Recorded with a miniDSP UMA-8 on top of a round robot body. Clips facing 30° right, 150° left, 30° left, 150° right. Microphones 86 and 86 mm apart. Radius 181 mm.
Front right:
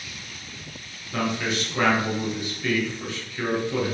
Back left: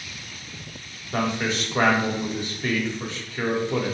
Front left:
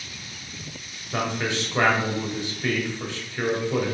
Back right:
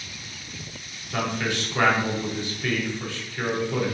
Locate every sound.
1.1 s a man speaking: 95° left, 3 m